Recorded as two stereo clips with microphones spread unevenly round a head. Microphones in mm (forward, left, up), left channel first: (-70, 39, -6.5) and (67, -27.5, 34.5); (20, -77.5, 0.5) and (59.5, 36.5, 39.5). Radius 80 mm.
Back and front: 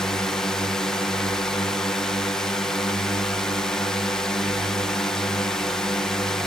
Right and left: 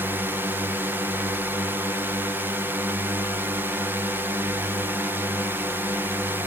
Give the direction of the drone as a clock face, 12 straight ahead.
6 o'clock.